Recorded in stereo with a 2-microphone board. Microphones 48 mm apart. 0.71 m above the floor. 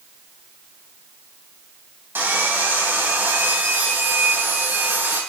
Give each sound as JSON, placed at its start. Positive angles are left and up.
{"t": 2.1, "sound": "sawing", "side_deg": -45, "distance_m": 3.0}